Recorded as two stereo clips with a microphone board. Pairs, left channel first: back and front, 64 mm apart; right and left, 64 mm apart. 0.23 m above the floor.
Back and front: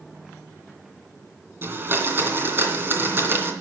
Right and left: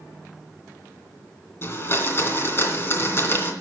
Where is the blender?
45° right, 2.5 m.